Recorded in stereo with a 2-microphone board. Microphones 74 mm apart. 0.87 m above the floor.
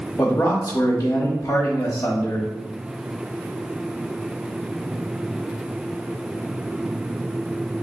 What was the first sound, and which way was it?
A man speaking, 35° left (ahead or behind).